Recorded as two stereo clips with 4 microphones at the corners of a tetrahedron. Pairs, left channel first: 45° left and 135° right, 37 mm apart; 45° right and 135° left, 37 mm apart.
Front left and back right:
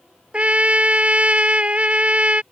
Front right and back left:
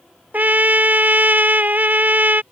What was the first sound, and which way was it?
A trumpet, 175° left.